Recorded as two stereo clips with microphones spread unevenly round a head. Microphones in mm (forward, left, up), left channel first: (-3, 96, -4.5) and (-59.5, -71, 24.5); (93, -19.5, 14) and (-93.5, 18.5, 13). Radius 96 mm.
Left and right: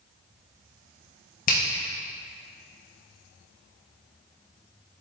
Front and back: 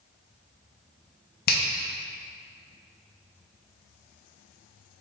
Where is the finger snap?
30° left, 0.9 m.